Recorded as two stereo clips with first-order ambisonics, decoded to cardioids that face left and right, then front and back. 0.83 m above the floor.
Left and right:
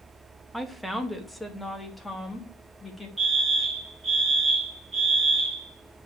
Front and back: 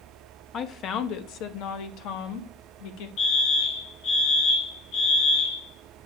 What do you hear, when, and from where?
0.5 s a woman speaking: 5° right, 0.7 m; by 3.1 s 10° left, 2 m
3.2 s a fire alarm: 15° right, 3 m